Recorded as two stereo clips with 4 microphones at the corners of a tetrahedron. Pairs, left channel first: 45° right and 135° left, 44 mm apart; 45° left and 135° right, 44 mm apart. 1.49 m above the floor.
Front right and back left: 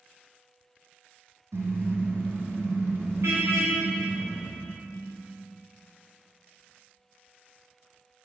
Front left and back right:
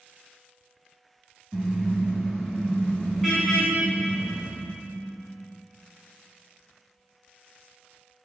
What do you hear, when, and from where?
1.5 s a car horn: 135° left, 7 m; by 4.4 s 130° left, 11 m